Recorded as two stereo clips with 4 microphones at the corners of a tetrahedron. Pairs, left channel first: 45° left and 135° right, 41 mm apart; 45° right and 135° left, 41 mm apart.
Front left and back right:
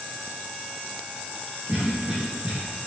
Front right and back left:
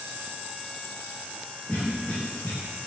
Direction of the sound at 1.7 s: 100° right.